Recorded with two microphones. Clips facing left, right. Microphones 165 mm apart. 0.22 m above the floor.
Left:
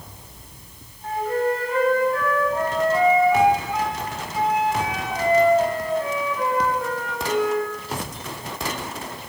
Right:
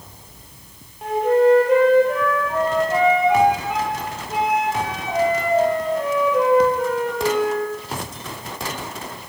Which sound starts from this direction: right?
A flute, at 1.0 s.